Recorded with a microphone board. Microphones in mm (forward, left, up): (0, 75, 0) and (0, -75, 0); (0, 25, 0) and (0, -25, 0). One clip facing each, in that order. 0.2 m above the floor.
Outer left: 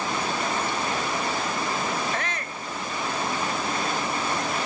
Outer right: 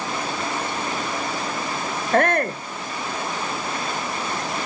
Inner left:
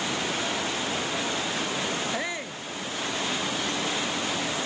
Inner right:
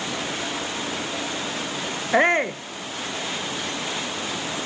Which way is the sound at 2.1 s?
60° right (ahead or behind).